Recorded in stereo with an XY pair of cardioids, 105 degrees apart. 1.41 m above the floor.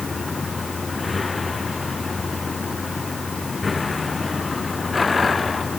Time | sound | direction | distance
0.0 | a vehicle | 30° left | ?